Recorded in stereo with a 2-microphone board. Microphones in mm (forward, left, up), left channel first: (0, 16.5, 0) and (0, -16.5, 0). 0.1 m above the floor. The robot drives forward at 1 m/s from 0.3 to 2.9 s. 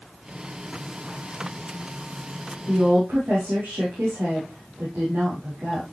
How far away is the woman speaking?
About 5.5 m.